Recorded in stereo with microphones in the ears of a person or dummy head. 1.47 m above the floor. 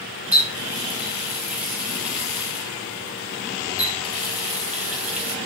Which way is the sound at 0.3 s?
10° right (ahead or behind).